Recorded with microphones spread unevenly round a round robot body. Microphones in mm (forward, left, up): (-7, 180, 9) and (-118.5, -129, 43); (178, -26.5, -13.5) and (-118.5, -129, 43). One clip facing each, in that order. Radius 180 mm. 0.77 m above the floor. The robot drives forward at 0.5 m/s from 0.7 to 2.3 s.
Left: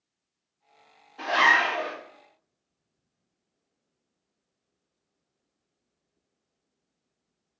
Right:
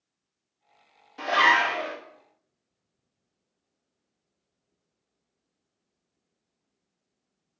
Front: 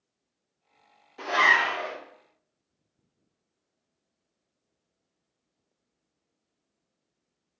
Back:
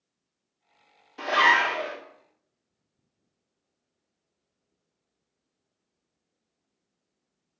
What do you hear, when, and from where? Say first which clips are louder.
1.2 s a zipper: right 1 dB, back 2 dB; 140° right, 1.2 m; by 1.9 s 150° right, 1.5 m